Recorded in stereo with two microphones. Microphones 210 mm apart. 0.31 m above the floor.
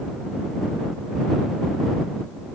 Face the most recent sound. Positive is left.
No sound to turn to.